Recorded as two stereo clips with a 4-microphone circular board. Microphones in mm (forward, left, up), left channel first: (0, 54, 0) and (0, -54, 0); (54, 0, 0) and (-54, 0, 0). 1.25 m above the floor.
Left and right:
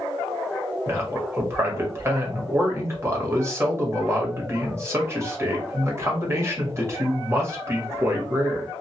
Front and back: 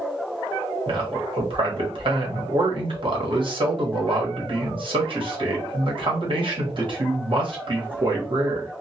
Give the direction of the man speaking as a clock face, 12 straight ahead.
5 o'clock.